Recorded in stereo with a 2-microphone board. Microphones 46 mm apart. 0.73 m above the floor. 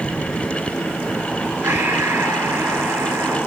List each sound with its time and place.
1.6 s breathing: 70° right (ahead or behind), 5 m